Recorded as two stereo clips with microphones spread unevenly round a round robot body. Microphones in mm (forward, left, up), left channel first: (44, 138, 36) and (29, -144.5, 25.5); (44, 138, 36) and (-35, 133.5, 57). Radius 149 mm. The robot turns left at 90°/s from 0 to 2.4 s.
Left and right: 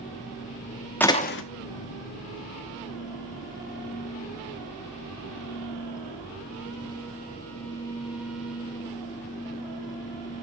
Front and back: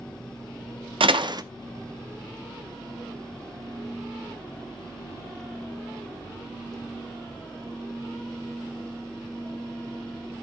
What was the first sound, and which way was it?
A door slam, 175° left.